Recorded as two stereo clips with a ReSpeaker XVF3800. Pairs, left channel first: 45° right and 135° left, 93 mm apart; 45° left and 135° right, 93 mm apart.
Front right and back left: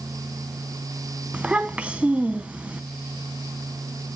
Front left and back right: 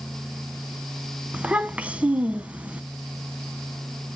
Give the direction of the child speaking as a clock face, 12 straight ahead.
6 o'clock.